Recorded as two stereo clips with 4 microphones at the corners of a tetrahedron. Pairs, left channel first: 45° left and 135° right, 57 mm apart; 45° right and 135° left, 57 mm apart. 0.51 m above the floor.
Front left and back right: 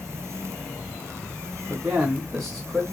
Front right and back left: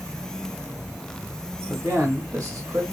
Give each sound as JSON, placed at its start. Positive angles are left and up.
{"t": 1.7, "sound": "a man speaking", "azimuth_deg": 180, "distance_m": 1.7}